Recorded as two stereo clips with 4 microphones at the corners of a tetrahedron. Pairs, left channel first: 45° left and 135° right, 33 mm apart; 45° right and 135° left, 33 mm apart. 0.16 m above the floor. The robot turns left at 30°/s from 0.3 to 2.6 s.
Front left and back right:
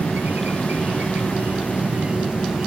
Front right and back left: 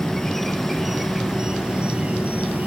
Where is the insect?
125° right; by 2.7 s 165° left.